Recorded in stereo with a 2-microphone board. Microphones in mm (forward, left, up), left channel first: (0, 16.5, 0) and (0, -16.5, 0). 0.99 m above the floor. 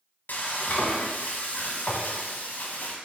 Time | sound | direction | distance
0.3 | frying | 55° left (ahead or behind) | 0.7 m